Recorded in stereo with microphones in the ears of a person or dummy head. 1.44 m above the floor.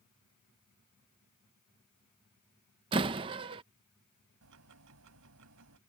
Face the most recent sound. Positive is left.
turn(degrees=-75)  # may be behind; listen again after turning